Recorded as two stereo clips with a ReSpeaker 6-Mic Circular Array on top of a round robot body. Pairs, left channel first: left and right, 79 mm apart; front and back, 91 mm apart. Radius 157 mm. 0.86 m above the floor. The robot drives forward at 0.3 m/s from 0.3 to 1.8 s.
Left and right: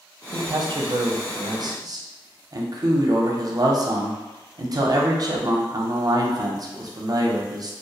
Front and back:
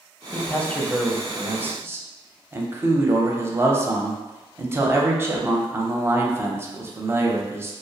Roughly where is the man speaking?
Ahead right.